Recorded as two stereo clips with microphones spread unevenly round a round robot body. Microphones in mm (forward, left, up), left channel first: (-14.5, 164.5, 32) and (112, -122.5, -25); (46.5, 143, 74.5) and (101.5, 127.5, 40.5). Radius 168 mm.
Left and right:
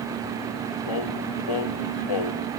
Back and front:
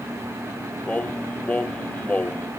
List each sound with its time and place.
0.9 s singing: 100° left, 0.8 m